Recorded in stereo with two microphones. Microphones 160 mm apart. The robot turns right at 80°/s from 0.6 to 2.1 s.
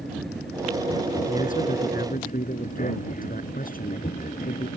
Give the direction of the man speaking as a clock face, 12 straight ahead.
11 o'clock.